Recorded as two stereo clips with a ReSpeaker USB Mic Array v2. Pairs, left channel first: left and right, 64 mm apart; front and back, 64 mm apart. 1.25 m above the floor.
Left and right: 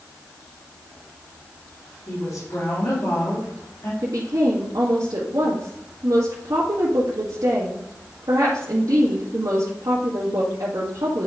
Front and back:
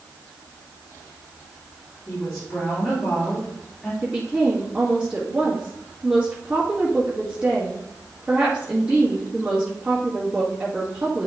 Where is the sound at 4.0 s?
105° right, 2 m.